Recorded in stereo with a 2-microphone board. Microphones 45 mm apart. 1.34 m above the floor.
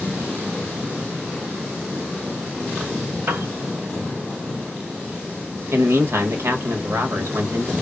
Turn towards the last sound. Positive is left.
turn(degrees=-70)  # may be behind; listen again after turning